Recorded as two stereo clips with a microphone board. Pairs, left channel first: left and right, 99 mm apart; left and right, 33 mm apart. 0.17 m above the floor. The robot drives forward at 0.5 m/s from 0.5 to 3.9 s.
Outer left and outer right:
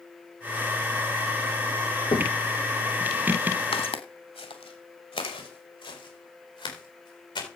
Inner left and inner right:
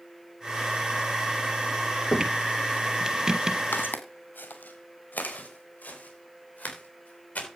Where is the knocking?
55° left (ahead or behind), 1.2 m.